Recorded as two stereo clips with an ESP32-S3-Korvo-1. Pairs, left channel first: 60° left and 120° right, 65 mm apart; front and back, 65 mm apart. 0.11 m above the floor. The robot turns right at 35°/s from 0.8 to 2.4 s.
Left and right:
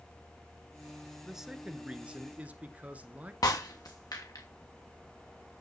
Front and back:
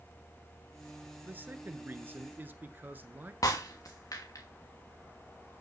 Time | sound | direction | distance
1.2 | a man speaking | 155° left | 1.2 m
3.4 | breaking glass | 35° left | 2.5 m